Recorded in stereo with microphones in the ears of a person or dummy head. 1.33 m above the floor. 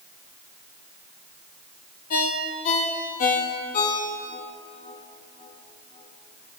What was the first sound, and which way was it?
A ringtone, 45° left (ahead or behind).